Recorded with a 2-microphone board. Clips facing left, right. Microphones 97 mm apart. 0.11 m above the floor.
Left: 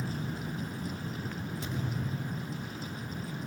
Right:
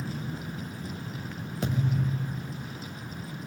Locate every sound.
1.6 s a thud: 85° right, 4.5 m